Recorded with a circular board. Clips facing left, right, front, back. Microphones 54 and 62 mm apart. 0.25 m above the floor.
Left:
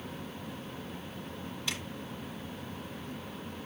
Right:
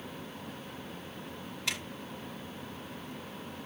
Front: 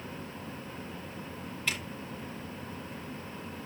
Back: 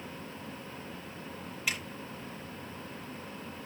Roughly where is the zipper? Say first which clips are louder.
Right 2 dB, even; right.